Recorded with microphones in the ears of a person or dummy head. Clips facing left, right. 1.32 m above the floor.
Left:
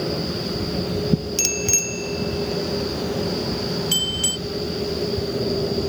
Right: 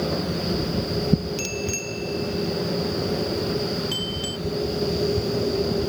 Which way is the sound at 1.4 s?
65° left (ahead or behind).